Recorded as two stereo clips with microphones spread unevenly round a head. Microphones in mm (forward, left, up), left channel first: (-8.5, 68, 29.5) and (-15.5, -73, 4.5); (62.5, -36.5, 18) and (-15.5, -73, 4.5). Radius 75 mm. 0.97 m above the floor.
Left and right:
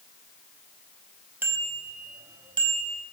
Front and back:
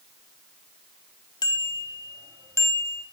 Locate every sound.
1.4 s a bicycle bell: 15° right, 4 m; by 3.0 s 35° right, 4 m